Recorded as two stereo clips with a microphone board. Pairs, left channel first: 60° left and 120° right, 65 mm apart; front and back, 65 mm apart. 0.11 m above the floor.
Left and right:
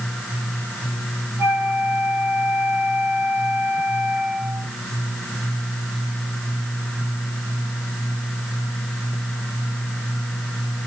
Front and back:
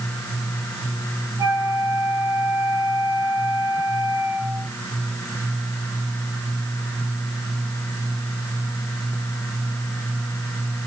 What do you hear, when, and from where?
1.4 s a flute: 160° right, 7 m